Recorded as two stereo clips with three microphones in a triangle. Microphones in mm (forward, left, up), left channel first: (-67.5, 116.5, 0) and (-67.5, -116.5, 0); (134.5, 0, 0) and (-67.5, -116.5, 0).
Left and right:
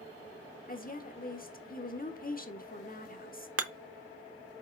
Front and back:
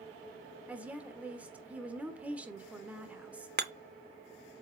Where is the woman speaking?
130° left, 1.2 m.